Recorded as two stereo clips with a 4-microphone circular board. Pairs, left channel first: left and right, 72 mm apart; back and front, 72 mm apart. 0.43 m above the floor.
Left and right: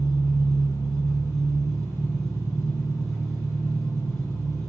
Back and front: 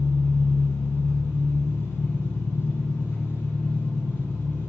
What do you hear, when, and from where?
0.0 s an engine running: 125° left, 3.5 m